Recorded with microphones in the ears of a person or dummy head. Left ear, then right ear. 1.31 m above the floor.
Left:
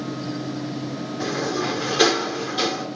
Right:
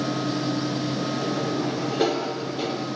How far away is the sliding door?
About 3 m.